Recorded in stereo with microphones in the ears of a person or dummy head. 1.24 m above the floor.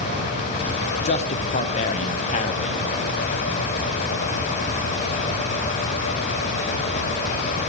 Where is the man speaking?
35° left (ahead or behind), 0.5 m.